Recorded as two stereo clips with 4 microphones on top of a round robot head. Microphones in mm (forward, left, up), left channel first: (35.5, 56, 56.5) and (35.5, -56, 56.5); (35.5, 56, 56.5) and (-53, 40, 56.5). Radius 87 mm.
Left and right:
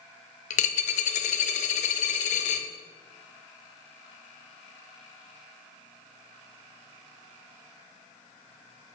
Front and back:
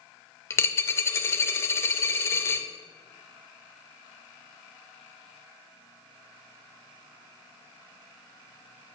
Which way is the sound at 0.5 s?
75° left.